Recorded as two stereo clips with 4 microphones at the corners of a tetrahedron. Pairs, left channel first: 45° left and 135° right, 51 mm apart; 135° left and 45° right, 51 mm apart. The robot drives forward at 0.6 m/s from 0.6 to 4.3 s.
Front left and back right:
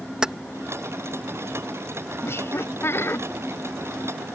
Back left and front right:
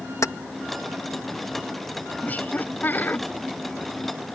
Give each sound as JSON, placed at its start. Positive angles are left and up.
{"t": 0.2, "sound": "keys jangling", "azimuth_deg": 150}
{"t": 2.2, "sound": "laughter", "azimuth_deg": 80}